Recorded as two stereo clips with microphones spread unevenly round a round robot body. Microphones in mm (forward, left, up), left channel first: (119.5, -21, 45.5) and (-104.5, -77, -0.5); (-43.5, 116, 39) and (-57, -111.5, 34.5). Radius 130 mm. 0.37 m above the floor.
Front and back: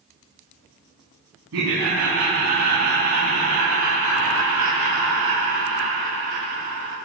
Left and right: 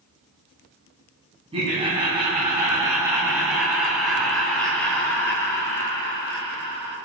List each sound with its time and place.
1.5 s laughter: 155° right, 3.5 m; by 7.0 s 150° left, 4 m